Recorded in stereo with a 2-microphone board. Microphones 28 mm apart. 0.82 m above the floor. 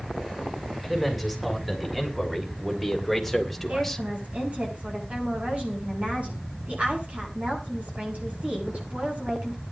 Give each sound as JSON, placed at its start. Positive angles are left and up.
{"t": 0.8, "sound": "a man speaking", "side_deg": -10, "distance_m": 6.0}
{"t": 3.7, "sound": "a woman speaking", "side_deg": -60, "distance_m": 9.0}